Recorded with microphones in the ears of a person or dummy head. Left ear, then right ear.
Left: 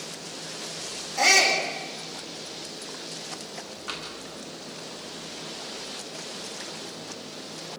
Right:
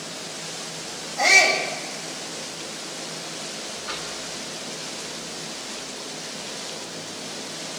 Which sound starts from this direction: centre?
Tapping, at 3.9 s.